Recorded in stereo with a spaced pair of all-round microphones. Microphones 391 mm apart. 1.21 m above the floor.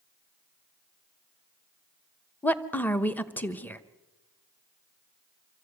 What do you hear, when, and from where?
2.4 s a woman speaking: 5° left (ahead or behind), 1.0 m